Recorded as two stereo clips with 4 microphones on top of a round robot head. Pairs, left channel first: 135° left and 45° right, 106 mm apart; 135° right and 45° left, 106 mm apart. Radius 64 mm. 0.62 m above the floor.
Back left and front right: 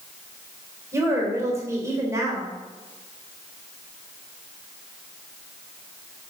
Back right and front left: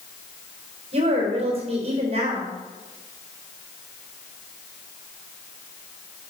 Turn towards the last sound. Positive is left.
turn(degrees=20)